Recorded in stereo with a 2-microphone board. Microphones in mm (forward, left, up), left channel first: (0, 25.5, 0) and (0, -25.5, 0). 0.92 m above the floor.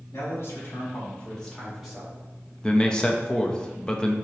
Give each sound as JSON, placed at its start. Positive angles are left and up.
{"t": 0.1, "sound": "a man speaking", "side_deg": 65, "distance_m": 1.8}
{"t": 2.6, "sound": "a man speaking", "side_deg": 15, "distance_m": 0.6}